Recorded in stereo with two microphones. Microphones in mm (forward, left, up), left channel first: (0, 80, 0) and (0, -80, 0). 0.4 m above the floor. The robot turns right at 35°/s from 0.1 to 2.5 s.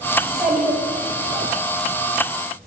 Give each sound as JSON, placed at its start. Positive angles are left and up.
{"t": 0.2, "sound": "a child speaking", "azimuth_deg": 175, "distance_m": 1.2}